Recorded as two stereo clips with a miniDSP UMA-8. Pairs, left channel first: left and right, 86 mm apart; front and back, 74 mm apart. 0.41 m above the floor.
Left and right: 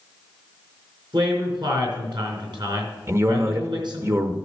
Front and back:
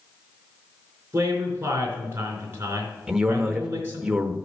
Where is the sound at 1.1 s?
120° right, 4 m.